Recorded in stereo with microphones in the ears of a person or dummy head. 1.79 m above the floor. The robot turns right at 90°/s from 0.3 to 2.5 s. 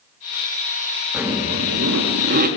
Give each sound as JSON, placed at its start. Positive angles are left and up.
{"t": 1.1, "sound": "a zipper", "azimuth_deg": -165, "distance_m": 4.5}